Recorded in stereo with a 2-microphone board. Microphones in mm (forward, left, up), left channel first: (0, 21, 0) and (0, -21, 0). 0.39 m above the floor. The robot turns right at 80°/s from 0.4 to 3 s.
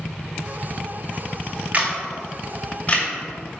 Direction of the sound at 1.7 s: 35° right (ahead or behind).